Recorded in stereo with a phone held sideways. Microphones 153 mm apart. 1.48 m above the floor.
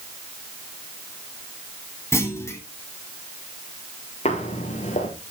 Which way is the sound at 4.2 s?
40° left (ahead or behind).